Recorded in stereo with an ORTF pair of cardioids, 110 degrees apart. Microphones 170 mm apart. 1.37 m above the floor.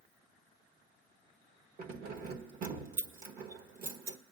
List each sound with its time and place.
1.8 s keys jangling: 60° right, 1.3 m